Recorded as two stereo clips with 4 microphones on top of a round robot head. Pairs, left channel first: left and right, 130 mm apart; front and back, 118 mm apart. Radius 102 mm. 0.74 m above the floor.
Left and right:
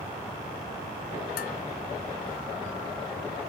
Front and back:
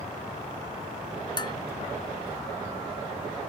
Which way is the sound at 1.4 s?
50° left.